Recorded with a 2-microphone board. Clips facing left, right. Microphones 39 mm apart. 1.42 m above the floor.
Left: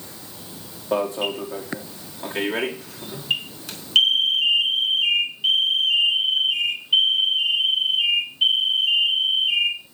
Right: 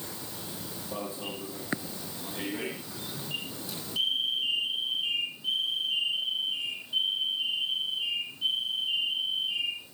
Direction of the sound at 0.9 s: 80° left.